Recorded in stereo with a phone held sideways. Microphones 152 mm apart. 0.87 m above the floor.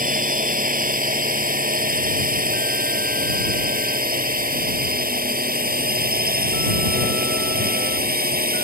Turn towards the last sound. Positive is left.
turn(degrees=-80)